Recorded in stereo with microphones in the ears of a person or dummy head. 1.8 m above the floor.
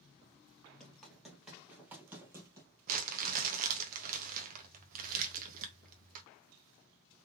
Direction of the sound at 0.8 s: 5° left (ahead or behind).